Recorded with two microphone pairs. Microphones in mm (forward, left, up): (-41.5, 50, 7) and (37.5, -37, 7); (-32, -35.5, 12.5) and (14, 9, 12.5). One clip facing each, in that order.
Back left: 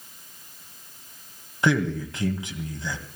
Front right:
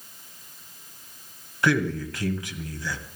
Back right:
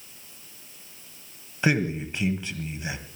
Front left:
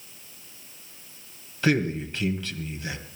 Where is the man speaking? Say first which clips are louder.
Even, front left 1 dB; 175° left, 1.8 m.